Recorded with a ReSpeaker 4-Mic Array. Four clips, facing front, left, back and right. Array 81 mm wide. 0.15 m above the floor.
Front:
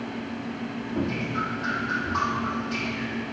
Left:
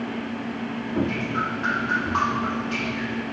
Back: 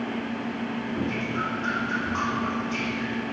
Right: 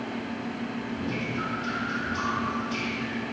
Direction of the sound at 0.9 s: 80° left.